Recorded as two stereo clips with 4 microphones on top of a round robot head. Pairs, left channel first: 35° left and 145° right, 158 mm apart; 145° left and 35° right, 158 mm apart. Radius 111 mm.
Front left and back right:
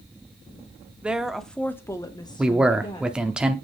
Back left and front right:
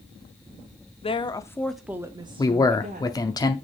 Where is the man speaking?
140° left, 0.7 m.